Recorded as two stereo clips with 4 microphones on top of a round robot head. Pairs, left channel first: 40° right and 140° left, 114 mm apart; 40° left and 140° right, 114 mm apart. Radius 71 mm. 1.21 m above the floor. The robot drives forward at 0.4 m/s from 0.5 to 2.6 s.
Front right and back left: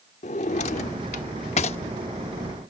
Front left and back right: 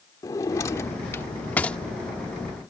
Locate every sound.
0.2 s a drawer: 20° right; by 1.8 s 35° right